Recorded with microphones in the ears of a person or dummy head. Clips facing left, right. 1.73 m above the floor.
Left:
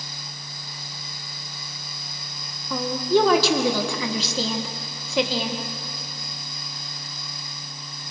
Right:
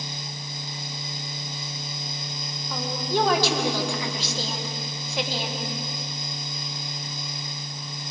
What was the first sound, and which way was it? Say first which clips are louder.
A woman speaking: left 7 dB; 65° left (ahead or behind).